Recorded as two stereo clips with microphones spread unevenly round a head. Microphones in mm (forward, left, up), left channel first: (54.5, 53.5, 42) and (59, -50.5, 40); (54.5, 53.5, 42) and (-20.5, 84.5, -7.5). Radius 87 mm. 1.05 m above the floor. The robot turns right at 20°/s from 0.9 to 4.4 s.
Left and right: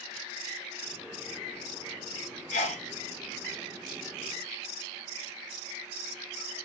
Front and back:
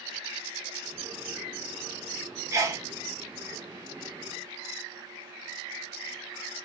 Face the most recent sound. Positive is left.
turn(degrees=145)